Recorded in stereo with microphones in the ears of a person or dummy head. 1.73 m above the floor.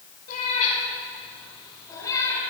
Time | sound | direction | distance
0.3 | a cat meowing | 40° left (ahead or behind) | 6 m